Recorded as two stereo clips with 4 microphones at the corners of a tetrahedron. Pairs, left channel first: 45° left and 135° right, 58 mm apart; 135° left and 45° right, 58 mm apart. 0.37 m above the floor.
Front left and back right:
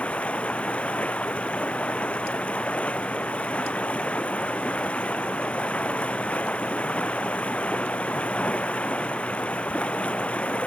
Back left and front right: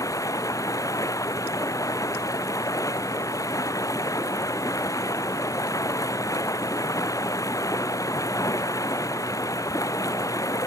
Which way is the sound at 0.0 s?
115° left.